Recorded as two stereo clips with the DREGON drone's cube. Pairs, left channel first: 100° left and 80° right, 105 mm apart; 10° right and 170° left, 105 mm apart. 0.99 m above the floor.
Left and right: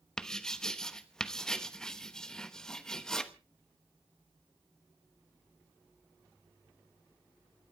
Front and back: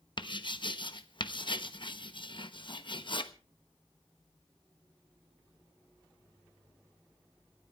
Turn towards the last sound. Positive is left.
turn(degrees=20)